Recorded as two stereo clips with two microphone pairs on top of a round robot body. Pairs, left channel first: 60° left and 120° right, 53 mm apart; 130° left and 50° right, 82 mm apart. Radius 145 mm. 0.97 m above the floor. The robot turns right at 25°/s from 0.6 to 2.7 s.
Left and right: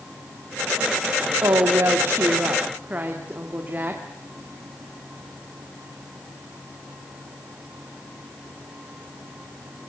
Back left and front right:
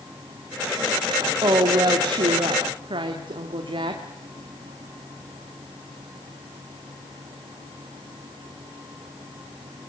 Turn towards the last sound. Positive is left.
turn(degrees=-60)